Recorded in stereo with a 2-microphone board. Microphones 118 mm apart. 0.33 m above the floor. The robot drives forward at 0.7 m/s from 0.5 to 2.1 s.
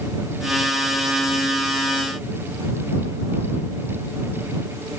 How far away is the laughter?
No laughter in this recording.